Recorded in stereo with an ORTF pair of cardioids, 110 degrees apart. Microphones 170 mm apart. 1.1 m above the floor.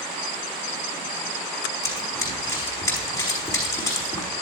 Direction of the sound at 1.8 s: 20° left.